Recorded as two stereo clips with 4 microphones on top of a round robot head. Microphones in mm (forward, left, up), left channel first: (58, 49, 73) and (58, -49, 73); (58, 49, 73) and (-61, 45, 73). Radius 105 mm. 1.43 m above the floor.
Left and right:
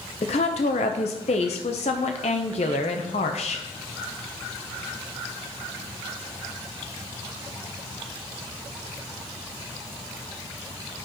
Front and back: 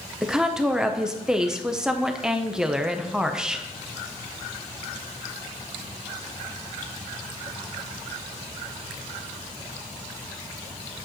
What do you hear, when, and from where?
0.2 s a woman speaking: 100° left, 0.6 m